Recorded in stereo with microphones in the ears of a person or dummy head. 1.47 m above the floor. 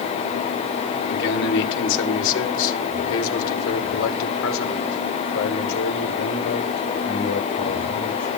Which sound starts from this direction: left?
A man speaking, at 1.1 s.